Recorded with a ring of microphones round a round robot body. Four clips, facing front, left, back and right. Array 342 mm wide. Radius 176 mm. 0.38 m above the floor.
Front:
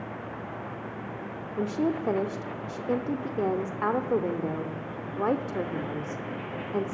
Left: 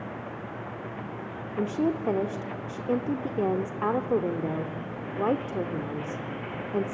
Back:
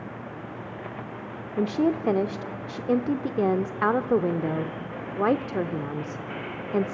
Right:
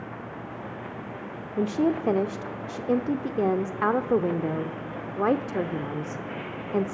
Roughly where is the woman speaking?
Behind right.